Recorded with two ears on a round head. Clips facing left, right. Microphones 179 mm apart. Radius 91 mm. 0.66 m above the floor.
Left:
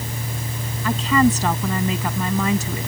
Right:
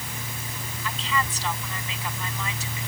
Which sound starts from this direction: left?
A woman speaking, at 0.8 s.